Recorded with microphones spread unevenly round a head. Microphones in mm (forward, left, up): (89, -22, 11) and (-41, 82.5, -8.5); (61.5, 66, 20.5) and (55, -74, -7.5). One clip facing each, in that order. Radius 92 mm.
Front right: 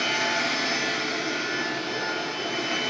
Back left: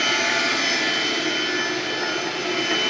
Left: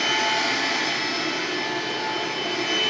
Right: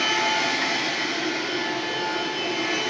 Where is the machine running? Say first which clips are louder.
Back left 3 dB, even; 170° right, 1.2 m.